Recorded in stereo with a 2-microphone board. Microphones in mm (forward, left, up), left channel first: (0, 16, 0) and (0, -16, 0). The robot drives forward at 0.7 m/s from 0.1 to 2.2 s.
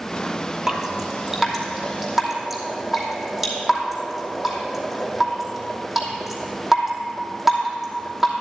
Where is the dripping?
15° right (ahead or behind), 1.3 m; by 8.3 s 10° right (ahead or behind), 2.5 m.